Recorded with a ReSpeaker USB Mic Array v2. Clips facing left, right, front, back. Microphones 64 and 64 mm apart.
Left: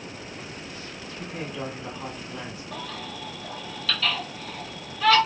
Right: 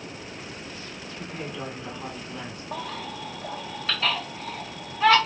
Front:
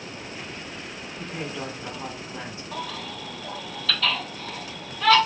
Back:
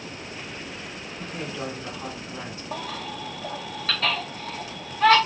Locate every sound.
1.2 s a woman speaking: 15° left, 1.2 m
2.7 s a baby crying: 145° right, 1.2 m